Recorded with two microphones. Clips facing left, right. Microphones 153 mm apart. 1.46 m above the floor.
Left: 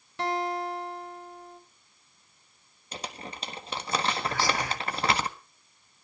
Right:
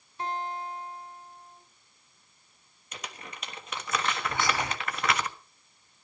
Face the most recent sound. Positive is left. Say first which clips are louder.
# left 1 dB
turn(degrees=-20)  # may be behind; listen again after turning